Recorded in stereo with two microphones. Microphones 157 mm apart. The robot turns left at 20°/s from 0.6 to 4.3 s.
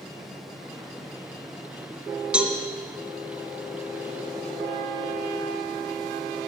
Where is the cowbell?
5° right (ahead or behind), 1.5 m; by 2.5 s 10° right (ahead or behind), 1.5 m.